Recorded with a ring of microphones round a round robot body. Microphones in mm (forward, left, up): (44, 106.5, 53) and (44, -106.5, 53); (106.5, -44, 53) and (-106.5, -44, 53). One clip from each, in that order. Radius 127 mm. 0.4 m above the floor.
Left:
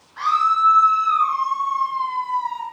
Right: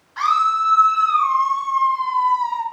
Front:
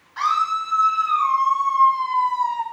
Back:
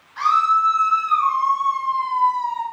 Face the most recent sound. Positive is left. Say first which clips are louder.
# even, back 4 dB
turn(degrees=-65)